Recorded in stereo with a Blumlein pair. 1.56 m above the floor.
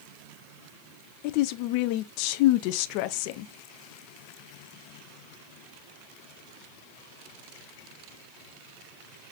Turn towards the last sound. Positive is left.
turn(degrees=45)